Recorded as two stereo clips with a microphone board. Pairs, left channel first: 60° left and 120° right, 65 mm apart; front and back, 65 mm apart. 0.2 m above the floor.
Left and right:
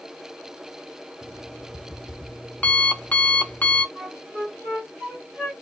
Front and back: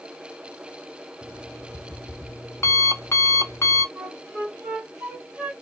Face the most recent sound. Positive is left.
turn(degrees=-165)